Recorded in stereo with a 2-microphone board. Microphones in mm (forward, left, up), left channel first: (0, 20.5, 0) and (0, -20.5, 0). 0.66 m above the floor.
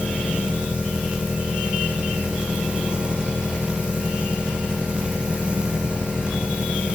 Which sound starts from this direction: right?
An engine running, at 0.0 s.